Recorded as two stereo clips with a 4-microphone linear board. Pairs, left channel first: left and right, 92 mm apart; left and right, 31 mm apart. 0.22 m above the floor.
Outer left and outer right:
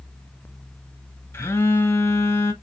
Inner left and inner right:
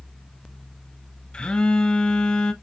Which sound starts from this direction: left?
A phone buzzing, at 1.3 s.